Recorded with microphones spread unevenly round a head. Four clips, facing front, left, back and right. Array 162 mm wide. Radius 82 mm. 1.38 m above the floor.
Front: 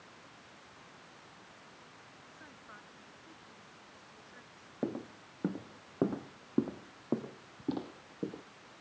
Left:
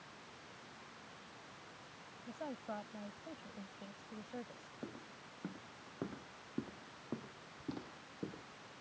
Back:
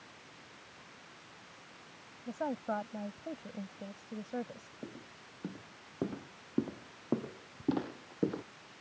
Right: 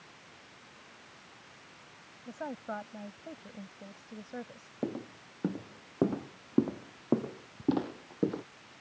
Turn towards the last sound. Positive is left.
turn(degrees=-120)